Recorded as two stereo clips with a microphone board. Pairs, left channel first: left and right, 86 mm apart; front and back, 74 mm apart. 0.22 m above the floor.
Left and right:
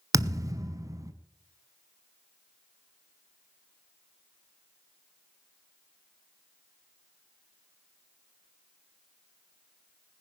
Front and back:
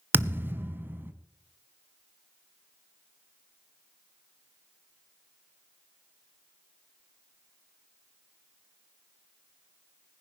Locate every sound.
0.1 s a thud: 125° right, 0.9 m